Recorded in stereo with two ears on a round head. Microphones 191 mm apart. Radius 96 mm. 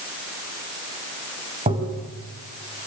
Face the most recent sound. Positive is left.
turn(degrees=-30)  # may be behind; listen again after turning